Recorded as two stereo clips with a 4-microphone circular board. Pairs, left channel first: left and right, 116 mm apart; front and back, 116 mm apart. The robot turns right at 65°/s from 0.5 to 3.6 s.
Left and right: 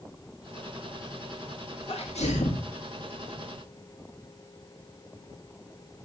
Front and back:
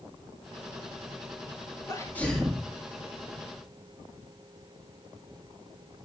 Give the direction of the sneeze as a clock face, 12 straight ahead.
10 o'clock.